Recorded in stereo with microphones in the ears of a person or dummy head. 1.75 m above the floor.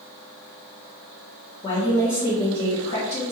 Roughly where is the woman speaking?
Left.